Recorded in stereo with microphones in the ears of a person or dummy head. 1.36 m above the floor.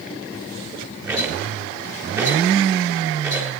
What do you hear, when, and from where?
1.1 s a rattle: 20° right (ahead or behind), 4 m